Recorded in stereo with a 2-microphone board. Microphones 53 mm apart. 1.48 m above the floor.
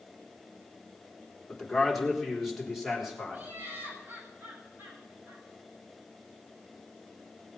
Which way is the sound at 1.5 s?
5° left (ahead or behind).